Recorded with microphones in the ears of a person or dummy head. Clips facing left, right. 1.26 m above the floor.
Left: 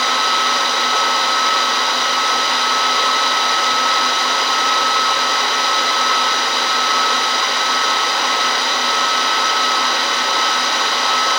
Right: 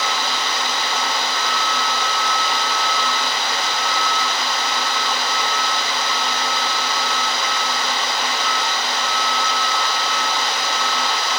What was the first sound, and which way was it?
Only background noise.